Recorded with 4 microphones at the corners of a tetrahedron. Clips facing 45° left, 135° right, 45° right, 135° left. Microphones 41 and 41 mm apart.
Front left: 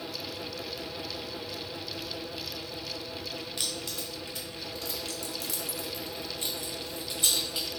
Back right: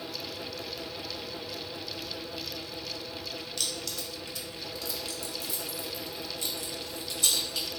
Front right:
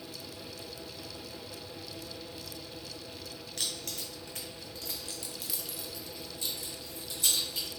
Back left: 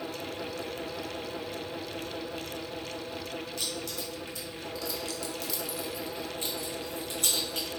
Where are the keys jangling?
25° right, 1.9 m; by 7.7 s 115° left, 1.9 m.